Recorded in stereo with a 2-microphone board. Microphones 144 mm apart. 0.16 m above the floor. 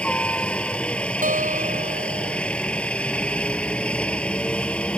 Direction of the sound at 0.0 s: 5° left (ahead or behind).